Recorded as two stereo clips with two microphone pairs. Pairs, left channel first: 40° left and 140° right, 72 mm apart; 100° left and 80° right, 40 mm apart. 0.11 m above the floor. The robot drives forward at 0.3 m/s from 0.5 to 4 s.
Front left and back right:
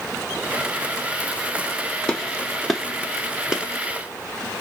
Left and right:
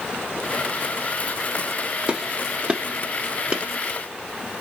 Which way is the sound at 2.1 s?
35° right.